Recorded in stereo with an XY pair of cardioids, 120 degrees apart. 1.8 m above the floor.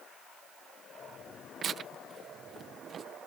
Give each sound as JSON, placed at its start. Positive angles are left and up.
{"t": 1.6, "sound": "tearing paper", "azimuth_deg": -45}